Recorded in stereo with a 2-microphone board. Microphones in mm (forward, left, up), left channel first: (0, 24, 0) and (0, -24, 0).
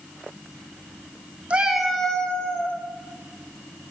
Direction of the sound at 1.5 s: 25° right (ahead or behind).